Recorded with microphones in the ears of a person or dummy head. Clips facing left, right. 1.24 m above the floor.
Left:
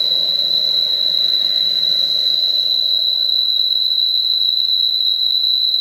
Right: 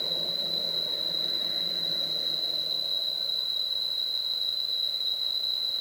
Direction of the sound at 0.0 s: 20° left (ahead or behind).